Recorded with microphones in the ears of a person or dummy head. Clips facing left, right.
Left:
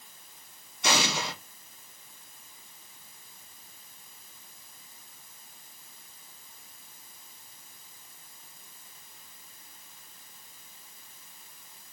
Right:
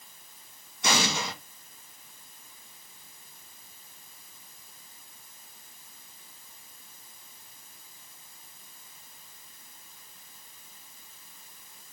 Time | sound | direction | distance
0.8 | an explosion | 50° right (ahead or behind) | 1.8 m